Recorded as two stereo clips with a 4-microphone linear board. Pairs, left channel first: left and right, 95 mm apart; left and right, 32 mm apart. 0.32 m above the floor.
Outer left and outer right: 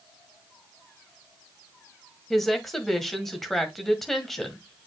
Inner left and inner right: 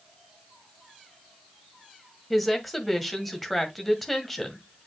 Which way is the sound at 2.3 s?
Centre (ahead or behind).